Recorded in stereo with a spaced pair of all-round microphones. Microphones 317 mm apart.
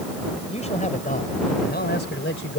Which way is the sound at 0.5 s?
20° left (ahead or behind).